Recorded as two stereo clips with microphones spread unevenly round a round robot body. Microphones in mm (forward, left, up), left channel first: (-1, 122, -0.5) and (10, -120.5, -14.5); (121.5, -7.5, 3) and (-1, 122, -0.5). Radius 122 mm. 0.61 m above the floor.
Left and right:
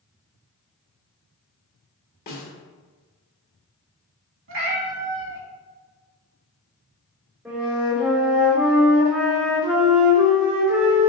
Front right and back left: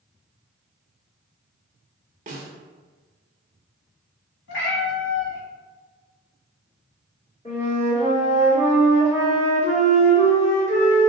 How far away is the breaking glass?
No breaking glass in this recording.